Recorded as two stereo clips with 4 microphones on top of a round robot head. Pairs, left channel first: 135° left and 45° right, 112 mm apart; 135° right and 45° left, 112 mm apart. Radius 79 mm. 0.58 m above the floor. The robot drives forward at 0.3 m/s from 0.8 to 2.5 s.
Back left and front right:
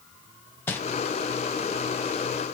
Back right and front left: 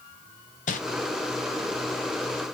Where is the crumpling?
155° right, 0.6 m.